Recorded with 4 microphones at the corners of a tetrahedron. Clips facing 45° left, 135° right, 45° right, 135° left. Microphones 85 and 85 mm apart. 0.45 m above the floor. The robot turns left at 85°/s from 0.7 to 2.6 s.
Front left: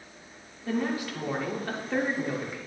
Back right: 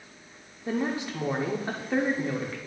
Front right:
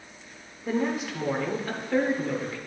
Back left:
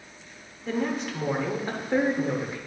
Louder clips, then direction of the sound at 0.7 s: Even, front right 1 dB; 100° right.